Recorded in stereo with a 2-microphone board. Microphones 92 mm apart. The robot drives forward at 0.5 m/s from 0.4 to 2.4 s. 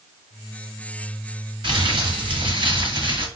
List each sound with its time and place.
1.6 s crumpling: 60° right (ahead or behind), 3 m